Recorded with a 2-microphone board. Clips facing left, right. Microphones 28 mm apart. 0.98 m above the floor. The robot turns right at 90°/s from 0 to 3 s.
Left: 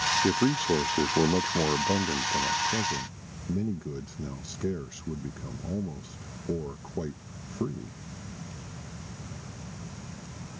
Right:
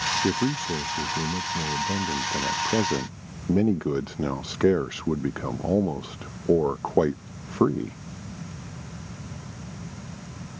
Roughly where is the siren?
I don't hear a siren.